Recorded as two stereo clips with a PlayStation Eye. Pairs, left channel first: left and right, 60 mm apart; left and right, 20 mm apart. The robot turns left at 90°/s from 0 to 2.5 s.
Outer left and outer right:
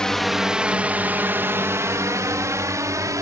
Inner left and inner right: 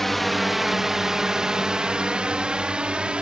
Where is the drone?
15° left (ahead or behind); by 3.2 s 70° right (ahead or behind).